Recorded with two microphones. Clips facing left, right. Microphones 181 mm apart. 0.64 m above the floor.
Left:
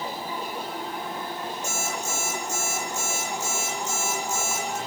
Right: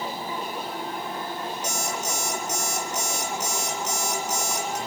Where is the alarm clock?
85° right, 7 m.